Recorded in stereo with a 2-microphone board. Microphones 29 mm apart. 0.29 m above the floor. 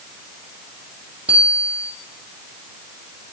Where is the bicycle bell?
50° right (ahead or behind), 7 m.